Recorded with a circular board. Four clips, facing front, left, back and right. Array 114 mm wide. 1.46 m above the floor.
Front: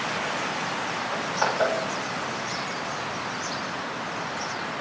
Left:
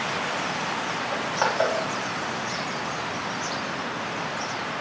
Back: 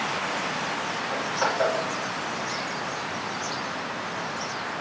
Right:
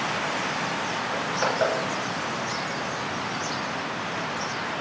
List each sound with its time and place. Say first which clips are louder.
1.1 s crushing: left 2 dB, even; 90° left, 3 m